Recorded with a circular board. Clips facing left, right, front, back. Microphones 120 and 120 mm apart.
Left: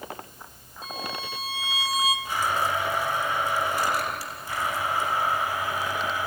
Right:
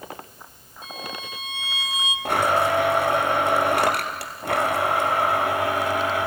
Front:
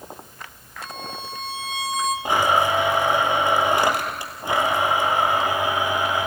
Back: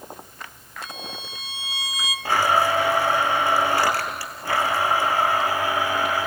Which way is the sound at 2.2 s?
70° right.